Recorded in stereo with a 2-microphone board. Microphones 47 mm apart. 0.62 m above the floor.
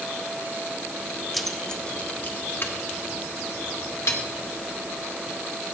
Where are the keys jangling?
Centre (ahead or behind), 0.7 m; by 4.2 s 60° left (ahead or behind), 1.3 m.